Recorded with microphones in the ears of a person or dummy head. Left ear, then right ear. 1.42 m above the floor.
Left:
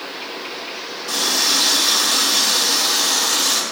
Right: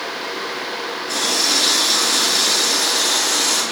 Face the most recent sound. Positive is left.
turn(degrees=50)  # may be behind; listen again after turning